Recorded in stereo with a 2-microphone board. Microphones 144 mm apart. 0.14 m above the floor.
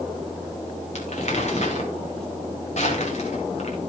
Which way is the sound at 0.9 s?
60° left (ahead or behind).